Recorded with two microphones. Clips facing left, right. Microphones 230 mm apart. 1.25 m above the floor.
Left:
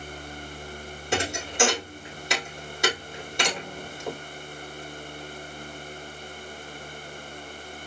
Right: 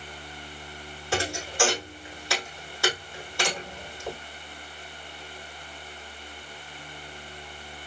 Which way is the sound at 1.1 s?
20° left (ahead or behind).